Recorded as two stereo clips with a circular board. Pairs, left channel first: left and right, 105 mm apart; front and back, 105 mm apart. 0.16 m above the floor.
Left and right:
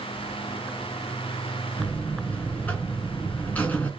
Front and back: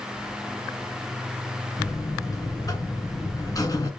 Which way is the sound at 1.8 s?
30° left.